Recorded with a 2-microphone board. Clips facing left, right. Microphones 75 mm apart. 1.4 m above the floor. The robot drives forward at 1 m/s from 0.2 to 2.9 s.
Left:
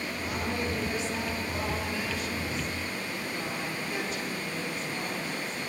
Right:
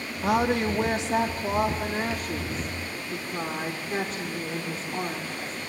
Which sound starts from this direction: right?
A woman speaking, at 0.2 s.